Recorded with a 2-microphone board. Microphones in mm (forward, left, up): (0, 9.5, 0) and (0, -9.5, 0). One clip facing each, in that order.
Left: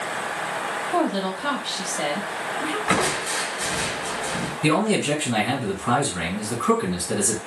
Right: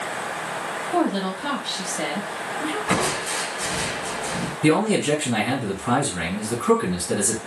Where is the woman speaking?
10° left (ahead or behind), 1.0 m.